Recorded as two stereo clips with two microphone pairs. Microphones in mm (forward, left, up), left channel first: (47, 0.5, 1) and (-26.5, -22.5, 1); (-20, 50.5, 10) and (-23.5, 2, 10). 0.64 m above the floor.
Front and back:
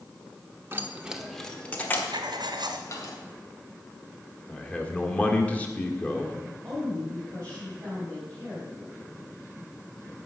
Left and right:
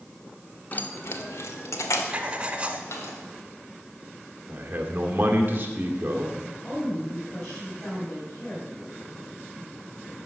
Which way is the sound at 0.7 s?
140° left.